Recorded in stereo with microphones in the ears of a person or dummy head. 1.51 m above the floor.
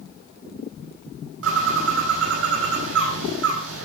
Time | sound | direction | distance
1.4 | a bird | 80° right | 4 m